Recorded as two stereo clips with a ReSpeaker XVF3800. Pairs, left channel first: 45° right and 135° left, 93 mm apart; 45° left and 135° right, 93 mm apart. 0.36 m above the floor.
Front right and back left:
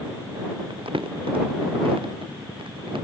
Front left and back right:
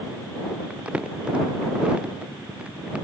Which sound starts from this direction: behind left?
Crumpling, at 0.7 s.